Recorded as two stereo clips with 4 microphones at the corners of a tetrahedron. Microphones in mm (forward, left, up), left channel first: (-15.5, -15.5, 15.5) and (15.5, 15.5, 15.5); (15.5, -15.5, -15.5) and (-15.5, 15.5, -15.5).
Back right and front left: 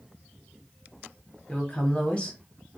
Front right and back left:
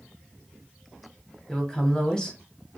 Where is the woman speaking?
105° right, 1.0 m.